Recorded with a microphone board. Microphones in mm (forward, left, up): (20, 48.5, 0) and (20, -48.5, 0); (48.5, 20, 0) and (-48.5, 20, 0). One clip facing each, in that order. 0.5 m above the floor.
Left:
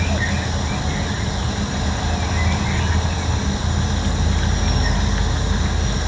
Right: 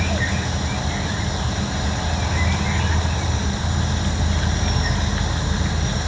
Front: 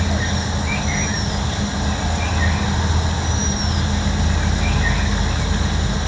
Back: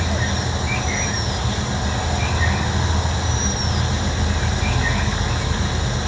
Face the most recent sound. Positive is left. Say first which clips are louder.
# left 1 dB, front 1 dB
turn(degrees=80)